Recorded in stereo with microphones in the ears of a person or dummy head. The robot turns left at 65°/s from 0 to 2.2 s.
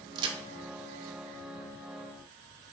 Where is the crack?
25° right (ahead or behind), 0.5 m; by 0.4 s 40° right (ahead or behind), 0.5 m.